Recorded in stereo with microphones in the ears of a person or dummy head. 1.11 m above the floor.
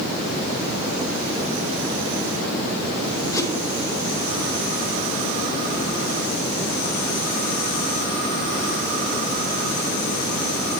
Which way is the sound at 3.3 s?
20° left (ahead or behind).